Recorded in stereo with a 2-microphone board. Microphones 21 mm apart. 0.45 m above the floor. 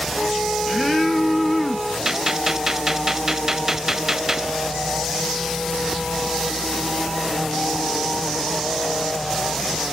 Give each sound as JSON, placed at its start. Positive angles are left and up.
{"t": 0.1, "sound": "a flute", "side_deg": 5, "distance_m": 4.0}
{"t": 2.0, "sound": "a gunshot", "side_deg": -20, "distance_m": 0.6}